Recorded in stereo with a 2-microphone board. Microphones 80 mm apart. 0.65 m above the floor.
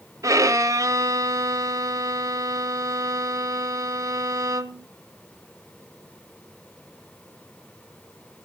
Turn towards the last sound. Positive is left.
turn(degrees=-45)  # may be behind; listen again after turning